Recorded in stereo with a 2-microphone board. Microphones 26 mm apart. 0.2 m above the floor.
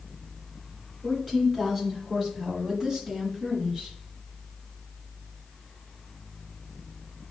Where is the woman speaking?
Centre (ahead or behind), 2.0 m; by 3.9 s 30° right (ahead or behind), 1.5 m.